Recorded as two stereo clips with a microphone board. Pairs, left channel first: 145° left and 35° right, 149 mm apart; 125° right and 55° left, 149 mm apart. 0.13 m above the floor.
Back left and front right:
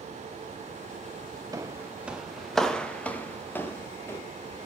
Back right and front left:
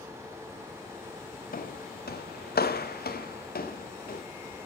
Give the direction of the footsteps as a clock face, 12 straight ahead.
3 o'clock.